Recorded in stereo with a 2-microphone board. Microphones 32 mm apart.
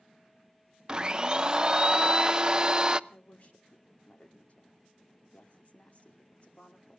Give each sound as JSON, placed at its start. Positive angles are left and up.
{"t": 0.9, "sound": "a blender", "side_deg": -30, "distance_m": 0.5}
{"t": 3.1, "sound": "a woman speaking", "side_deg": 35, "distance_m": 2.5}